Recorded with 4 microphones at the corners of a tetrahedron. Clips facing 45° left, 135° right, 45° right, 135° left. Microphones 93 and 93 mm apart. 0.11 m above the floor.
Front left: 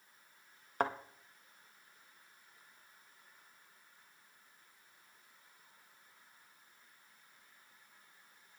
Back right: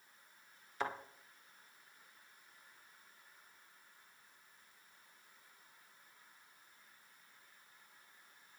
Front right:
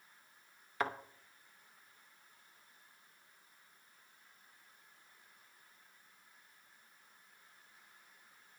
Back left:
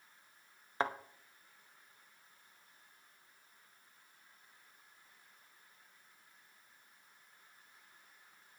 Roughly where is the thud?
Left.